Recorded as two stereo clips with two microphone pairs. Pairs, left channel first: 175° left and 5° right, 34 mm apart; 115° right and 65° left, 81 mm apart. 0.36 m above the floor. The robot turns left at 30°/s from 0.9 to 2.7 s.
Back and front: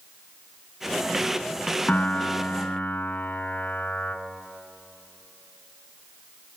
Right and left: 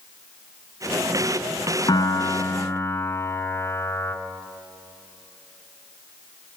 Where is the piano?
145° right, 1.8 m; by 4.2 s 170° right, 1.8 m.